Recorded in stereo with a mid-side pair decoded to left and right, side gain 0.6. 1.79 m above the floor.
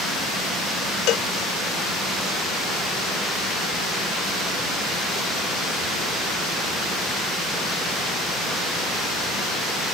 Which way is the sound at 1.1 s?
65° left.